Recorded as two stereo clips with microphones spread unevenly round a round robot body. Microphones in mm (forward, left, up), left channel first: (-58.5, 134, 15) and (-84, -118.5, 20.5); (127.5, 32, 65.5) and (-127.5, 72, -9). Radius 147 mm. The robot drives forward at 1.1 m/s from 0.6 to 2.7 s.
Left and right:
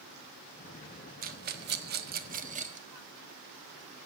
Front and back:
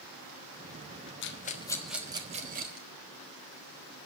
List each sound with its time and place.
1.2 s a rattle: 55° right, 1.1 m; by 2.9 s 155° right, 1.6 m